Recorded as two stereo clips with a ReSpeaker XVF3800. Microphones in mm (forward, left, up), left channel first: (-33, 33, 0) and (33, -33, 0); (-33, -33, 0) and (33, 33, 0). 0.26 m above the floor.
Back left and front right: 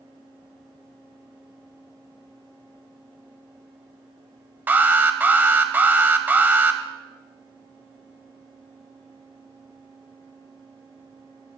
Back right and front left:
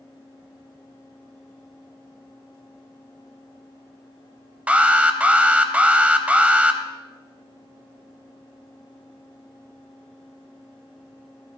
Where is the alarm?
10° right, 0.8 m.